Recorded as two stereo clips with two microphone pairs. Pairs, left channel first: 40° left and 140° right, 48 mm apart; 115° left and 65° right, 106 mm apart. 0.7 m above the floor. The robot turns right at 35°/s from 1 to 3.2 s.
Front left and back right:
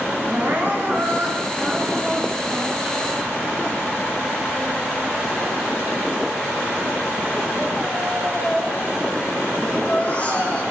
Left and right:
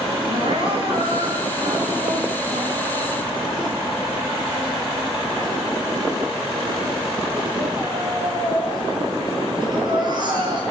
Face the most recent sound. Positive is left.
turn(degrees=-20)